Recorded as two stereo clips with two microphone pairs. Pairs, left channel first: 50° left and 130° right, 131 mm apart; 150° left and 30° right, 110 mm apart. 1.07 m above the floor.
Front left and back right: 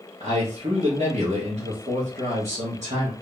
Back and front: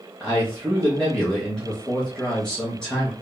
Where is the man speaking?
130° right, 1.3 m.